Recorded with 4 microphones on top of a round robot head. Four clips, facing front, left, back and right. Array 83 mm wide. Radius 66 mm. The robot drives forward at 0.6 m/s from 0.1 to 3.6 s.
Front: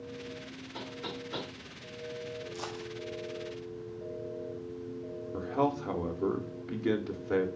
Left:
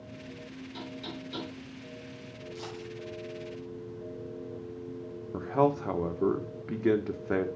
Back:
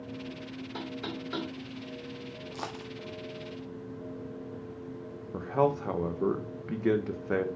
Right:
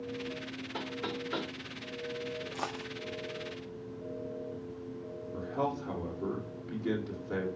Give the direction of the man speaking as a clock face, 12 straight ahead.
7 o'clock.